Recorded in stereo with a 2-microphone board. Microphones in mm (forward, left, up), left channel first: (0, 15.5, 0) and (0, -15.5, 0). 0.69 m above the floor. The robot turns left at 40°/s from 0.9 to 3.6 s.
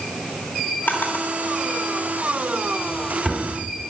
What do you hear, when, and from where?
0.9 s a drawer: 80° left, 3 m; by 3.5 s 5° right (ahead or behind), 3 m